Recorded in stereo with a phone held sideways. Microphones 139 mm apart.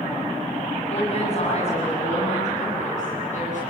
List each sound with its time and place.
0.9 s a woman speaking: 45° left (ahead or behind), 7.5 m; by 3.6 s 55° left (ahead or behind), 11 m